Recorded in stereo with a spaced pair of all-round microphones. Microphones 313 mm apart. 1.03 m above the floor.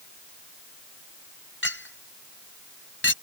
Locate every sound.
1.6 s a clink: 40° left (ahead or behind)